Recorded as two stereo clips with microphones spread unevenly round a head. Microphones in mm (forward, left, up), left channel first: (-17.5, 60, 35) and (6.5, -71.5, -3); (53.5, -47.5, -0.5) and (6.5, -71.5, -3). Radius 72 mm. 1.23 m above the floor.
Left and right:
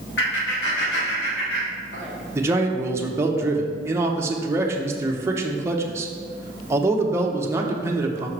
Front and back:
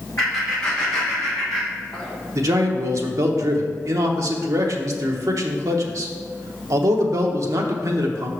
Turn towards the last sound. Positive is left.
turn(degrees=-145)